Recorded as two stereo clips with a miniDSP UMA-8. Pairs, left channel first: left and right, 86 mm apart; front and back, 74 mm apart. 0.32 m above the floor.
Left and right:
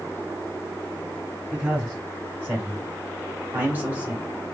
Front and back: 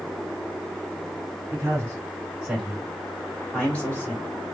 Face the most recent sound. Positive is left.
turn(degrees=-40)